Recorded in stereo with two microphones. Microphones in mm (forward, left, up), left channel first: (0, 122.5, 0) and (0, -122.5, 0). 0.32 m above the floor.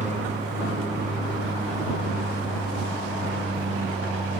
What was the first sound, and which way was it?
An aircraft, 30° right (ahead or behind).